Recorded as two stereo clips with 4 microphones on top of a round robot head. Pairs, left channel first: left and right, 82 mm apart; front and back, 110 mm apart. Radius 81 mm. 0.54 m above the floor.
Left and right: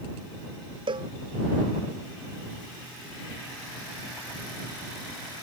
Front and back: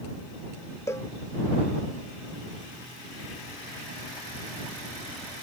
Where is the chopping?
No chopping in this recording.